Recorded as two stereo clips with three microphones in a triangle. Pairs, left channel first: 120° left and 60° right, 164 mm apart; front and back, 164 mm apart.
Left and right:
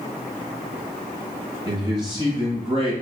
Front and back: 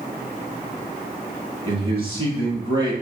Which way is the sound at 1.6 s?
125° right.